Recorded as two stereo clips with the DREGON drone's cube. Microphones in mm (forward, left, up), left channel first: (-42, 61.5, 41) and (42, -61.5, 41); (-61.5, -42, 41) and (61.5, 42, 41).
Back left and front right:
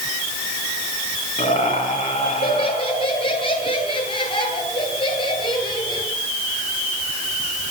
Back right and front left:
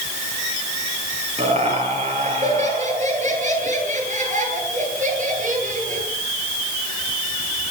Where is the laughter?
75° left, 9 m; by 6.1 s 65° left, 12 m.